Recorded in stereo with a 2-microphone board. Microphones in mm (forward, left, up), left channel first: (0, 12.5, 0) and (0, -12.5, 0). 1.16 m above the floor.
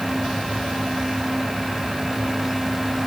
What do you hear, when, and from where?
Only background noise.